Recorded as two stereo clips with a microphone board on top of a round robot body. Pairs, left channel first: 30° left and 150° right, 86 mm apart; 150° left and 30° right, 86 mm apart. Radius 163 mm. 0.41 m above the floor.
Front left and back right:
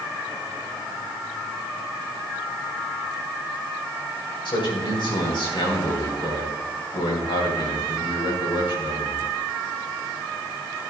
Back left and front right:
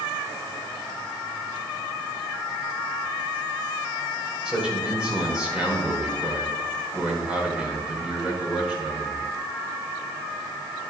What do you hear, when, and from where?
4.5 s a man speaking: 50° left, 4.5 m